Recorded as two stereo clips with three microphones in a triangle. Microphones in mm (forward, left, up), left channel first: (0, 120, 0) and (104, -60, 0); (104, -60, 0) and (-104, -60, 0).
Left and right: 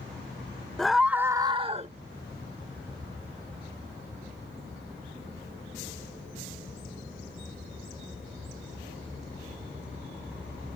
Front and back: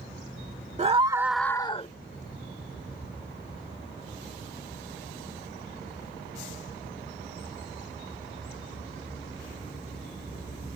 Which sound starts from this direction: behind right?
A scream, at 0.8 s.